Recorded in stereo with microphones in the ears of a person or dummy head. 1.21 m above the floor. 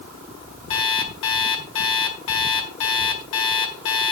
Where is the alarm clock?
65° left (ahead or behind), 1.7 m.